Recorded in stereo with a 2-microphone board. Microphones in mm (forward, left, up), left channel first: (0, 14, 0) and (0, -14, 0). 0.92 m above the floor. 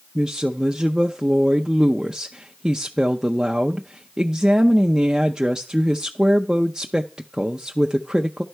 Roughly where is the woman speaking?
Right.